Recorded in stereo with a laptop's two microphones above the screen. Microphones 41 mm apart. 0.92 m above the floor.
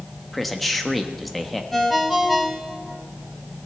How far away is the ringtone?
About 3 m.